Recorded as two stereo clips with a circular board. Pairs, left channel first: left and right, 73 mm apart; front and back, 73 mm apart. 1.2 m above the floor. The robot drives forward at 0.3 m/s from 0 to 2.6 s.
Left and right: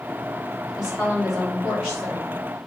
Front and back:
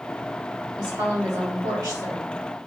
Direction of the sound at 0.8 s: 175° right.